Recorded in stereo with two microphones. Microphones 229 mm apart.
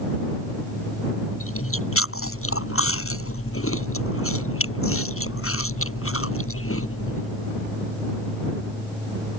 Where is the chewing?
70° left (ahead or behind).